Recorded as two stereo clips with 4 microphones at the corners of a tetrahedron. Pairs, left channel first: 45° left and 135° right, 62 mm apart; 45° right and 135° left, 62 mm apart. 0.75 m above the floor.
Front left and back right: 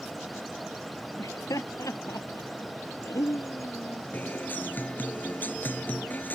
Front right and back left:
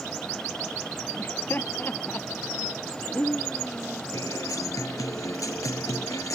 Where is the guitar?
15° right.